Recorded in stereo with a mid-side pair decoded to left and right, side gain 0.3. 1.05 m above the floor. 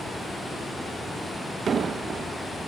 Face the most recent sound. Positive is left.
turn(degrees=-70)